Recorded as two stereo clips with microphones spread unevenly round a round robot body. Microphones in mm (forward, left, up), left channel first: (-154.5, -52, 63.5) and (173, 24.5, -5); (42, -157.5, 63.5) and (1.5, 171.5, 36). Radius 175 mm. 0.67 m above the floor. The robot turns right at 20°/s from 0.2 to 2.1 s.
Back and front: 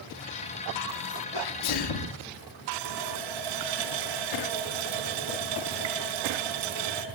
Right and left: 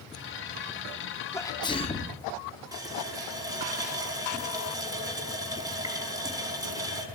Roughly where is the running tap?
Ahead.